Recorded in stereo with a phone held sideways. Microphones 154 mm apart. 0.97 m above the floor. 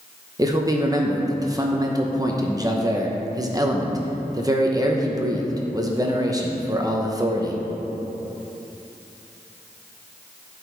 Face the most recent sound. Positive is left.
turn(degrees=-25)  # may be behind; listen again after turning